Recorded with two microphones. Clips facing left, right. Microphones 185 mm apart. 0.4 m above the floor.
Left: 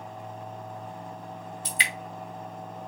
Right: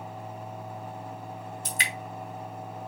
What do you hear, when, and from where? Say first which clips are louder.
1.6 s dripping: left 1 dB; 45° right (ahead or behind), 1.4 m